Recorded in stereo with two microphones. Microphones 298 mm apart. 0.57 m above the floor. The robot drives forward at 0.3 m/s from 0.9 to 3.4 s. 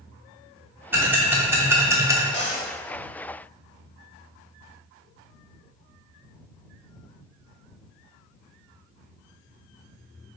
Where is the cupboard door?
35° left (ahead or behind), 0.8 m; by 2.7 s 40° left (ahead or behind), 0.8 m.